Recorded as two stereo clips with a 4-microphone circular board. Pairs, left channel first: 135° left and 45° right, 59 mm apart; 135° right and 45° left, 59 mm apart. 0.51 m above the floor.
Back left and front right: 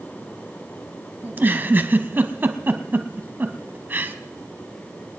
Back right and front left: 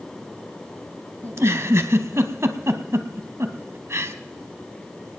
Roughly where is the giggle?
Ahead.